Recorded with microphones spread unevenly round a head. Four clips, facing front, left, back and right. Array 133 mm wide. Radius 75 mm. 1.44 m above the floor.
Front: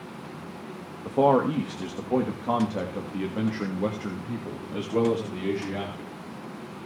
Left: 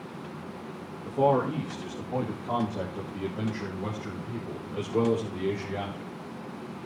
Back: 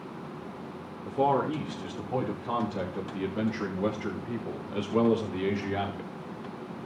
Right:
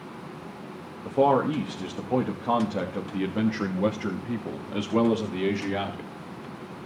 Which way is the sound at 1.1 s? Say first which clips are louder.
Right 3 dB, front 5 dB; 30° right.